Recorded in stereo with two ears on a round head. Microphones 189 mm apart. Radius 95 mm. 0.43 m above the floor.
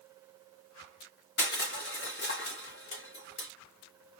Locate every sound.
1.4 s crushing: 50° left (ahead or behind), 0.9 m